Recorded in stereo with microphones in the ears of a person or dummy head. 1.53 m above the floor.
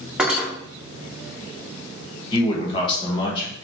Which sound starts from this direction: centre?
Cutlery clinking, at 0.2 s.